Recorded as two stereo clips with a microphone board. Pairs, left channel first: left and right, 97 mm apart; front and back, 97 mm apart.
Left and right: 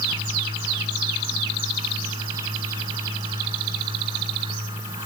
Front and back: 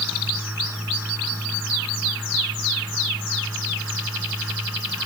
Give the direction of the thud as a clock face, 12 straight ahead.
No thud in this recording.